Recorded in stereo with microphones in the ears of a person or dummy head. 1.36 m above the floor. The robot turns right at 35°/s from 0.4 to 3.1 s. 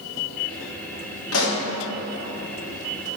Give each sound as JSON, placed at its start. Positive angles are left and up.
{"t": 1.3, "sound": "a pop", "side_deg": 75, "distance_m": 1.4}